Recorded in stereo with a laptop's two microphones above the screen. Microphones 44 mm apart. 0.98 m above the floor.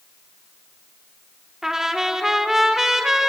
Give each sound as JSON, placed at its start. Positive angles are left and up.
{"t": 1.6, "sound": "a trumpet", "side_deg": -10, "distance_m": 1.2}